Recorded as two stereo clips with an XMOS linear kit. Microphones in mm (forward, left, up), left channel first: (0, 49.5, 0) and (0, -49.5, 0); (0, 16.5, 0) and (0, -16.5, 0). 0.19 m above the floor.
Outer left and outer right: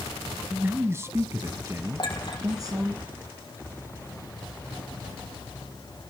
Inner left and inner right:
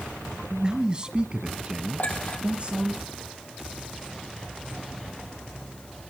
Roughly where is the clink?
Left.